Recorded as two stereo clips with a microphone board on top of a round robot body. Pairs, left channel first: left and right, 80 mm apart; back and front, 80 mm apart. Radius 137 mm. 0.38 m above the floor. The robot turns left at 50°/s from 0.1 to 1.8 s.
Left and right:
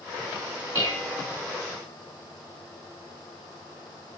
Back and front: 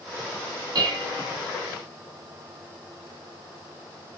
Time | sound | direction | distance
0.8 | dishes clattering | 40° left | 4 m